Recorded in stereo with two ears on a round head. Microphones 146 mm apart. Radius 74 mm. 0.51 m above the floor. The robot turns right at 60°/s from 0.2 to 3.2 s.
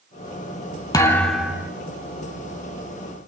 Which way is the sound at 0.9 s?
155° left.